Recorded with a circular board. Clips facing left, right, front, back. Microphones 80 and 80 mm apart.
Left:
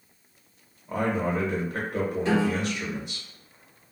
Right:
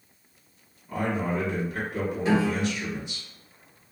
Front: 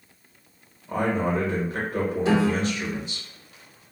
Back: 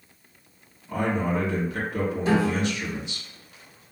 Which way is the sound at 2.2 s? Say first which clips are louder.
Right 2 dB, front 1 dB; 5° right.